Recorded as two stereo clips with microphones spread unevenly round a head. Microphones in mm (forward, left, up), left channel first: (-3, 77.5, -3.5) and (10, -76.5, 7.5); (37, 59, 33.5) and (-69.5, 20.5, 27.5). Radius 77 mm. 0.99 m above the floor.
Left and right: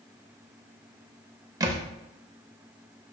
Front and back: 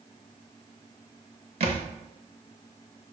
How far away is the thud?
About 0.8 m.